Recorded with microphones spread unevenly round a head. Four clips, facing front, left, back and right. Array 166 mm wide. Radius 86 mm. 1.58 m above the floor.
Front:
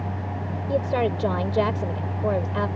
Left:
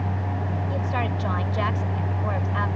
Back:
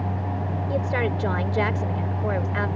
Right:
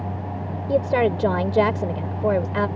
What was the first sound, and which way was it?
A woman speaking, 80° right.